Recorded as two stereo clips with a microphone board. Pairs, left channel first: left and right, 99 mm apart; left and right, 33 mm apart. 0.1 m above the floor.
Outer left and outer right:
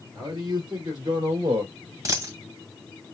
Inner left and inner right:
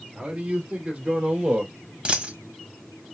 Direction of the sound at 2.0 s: 30° right (ahead or behind).